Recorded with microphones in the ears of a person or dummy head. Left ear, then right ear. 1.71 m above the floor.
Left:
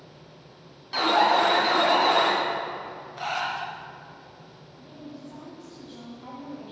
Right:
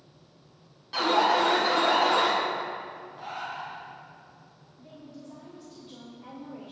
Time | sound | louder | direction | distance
0.9 | an alarm | left 2 dB | 10° left (ahead or behind) | 2 m
3.2 | breathing | left 8 dB | 55° left (ahead or behind) | 0.7 m
4.8 | a woman speaking | left 3 dB | 20° left (ahead or behind) | 2 m